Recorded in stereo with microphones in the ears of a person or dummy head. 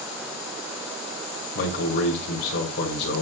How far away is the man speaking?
About 1.6 m.